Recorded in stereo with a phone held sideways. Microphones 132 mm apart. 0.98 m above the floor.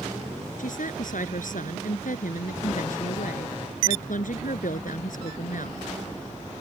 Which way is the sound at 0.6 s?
85° left.